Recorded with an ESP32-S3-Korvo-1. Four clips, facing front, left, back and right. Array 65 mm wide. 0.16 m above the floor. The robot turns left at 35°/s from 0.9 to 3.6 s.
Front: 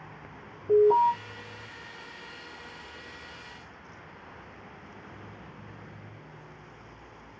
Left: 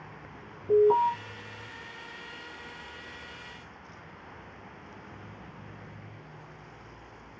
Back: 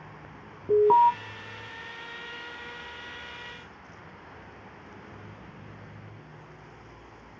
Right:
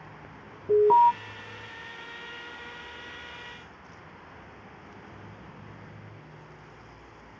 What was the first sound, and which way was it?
An alarm, 160° right.